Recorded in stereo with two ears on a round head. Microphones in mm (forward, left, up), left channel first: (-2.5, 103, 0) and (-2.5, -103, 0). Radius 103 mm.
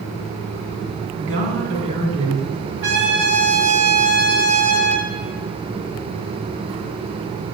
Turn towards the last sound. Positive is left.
turn(degrees=-45)  # may be behind; listen again after turning